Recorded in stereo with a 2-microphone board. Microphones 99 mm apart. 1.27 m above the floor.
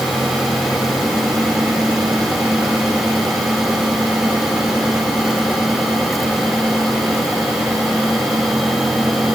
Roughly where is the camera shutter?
No camera shutter in this recording.